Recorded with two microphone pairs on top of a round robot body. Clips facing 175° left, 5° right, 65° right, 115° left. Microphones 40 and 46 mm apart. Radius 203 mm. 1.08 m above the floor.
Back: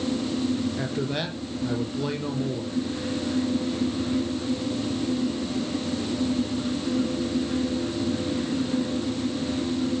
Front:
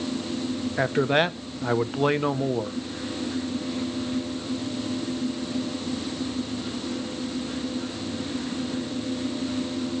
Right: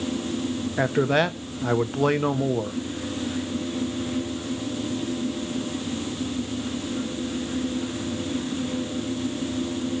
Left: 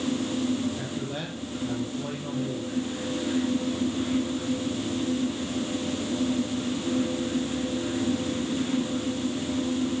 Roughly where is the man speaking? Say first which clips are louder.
Front 6 dB, right 12 dB; ahead right.